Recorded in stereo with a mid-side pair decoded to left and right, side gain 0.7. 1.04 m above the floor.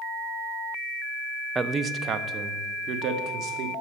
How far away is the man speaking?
About 0.6 m.